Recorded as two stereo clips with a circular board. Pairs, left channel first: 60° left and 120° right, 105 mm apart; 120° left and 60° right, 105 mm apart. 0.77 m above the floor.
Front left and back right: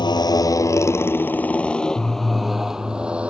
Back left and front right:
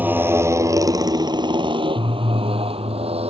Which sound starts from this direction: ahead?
A motorcycle, at 0.0 s.